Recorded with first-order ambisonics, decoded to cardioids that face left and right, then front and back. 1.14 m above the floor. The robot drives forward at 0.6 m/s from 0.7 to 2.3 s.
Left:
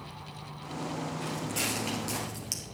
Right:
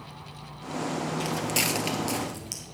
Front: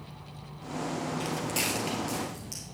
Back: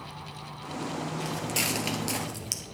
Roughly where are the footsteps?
Right.